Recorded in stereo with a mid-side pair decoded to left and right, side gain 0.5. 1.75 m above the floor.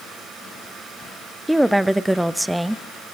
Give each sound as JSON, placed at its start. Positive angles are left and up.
{"t": 1.5, "sound": "a woman speaking", "azimuth_deg": -10, "distance_m": 0.6}